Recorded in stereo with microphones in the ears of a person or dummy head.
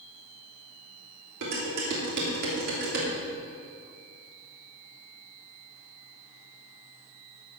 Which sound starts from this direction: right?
Dishes clattering, at 1.4 s.